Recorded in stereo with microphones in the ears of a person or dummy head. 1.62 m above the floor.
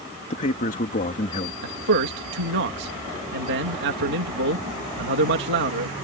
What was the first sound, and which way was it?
A man speaking, 35° left (ahead or behind).